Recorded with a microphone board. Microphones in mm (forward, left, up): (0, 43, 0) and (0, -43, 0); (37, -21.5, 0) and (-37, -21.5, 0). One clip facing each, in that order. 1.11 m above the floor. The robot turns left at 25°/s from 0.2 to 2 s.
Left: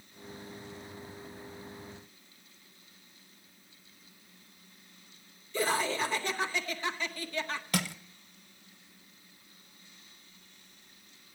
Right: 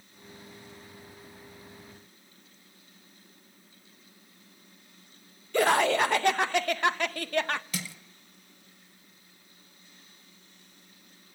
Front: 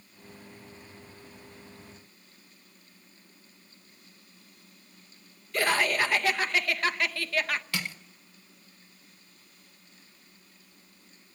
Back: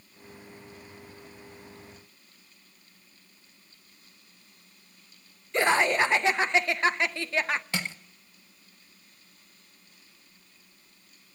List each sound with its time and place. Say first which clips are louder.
5.5 s laughter: right 7 dB, back 3 dB; 115° right, 0.7 m
7.7 s crushing: left 6 dB, back 2 dB; 115° left, 1.0 m